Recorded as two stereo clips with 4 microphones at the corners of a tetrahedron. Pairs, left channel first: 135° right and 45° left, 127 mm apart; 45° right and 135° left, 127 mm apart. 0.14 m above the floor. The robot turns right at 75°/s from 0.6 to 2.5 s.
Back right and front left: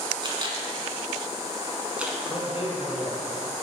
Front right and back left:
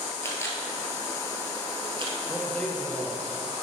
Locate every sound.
0.2 s a camera shutter: 15° left, 1.1 m; by 2.2 s 130° left, 1.1 m
2.3 s a man speaking: 140° right, 1.5 m; by 3.2 s 120° right, 1.5 m